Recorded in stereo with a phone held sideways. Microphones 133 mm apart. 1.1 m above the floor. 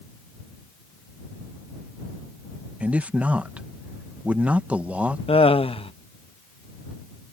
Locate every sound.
2.8 s a man speaking: 10° right (ahead or behind)
5.3 s laughter: 45° left (ahead or behind)